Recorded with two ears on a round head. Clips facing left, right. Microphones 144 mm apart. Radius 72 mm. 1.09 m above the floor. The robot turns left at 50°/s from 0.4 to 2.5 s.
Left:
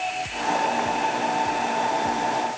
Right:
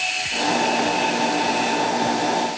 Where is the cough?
No cough in this recording.